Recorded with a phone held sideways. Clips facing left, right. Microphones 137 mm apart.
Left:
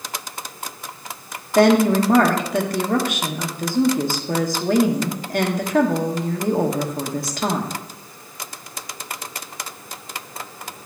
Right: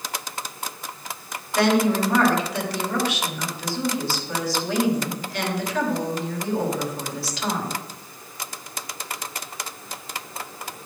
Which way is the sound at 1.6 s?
50° left (ahead or behind).